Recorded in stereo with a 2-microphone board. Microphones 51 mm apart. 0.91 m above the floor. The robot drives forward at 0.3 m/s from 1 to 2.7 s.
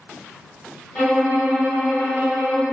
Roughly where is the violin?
Left.